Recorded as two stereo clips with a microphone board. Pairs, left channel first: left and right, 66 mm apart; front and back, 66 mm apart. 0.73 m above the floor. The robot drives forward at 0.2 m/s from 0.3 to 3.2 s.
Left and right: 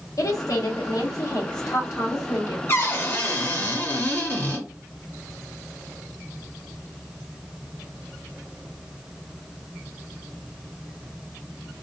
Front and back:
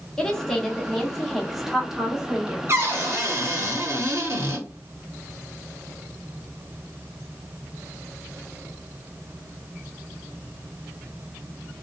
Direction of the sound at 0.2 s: 80° left.